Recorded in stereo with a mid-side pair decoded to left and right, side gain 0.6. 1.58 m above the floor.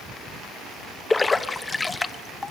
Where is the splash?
15° left, 1.0 m.